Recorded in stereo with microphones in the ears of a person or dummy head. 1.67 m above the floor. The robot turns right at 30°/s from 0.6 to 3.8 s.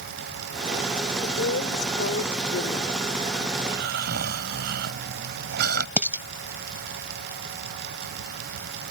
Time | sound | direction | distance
1.2 | a woman speaking | 75° left | ?
3.6 | snoring | 60° right (ahead or behind) | ?
6.0 | dishes clattering | 10° right (ahead or behind) | ?